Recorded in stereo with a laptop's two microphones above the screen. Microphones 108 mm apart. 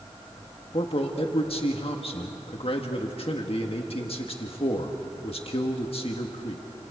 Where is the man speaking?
65° left (ahead or behind), 1.7 m.